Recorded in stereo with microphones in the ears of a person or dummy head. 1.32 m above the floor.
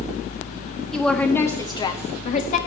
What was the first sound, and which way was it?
A woman speaking, centre (ahead or behind).